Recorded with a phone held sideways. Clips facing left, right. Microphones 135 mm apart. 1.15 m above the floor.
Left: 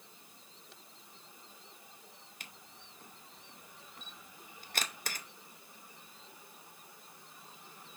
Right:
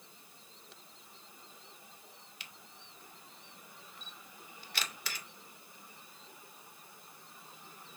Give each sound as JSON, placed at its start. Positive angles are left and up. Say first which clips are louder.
{"t": 2.4, "sound": "a camera shutter", "louder": "even", "side_deg": 45, "distance_m": 0.5}